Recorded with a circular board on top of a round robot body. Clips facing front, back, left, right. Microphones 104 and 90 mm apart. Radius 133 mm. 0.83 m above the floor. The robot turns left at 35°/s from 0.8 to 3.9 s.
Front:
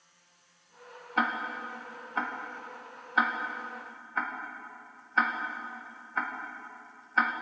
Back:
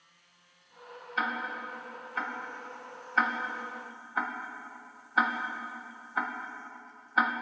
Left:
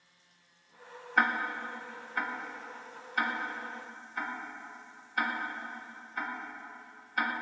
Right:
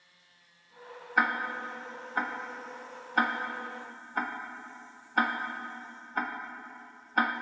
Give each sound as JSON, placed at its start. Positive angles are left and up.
{"t": 1.2, "sound": "ticking", "azimuth_deg": -5, "distance_m": 1.2}